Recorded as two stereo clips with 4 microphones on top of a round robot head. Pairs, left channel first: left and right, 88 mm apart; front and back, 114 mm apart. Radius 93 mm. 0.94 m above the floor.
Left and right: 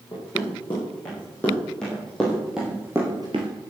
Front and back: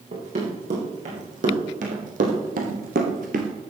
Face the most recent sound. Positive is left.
turn(degrees=-135)